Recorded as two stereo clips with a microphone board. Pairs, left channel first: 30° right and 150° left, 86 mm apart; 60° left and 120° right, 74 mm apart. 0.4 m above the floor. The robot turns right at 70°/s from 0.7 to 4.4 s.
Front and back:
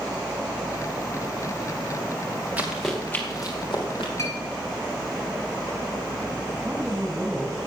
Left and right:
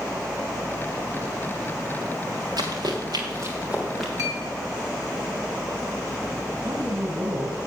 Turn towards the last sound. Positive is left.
turn(degrees=-135)